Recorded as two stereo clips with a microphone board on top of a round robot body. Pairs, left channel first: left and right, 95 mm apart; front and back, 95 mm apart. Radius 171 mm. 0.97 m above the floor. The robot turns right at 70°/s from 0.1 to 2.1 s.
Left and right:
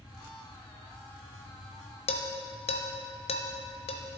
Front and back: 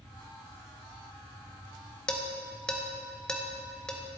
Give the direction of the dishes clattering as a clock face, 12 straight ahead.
9 o'clock.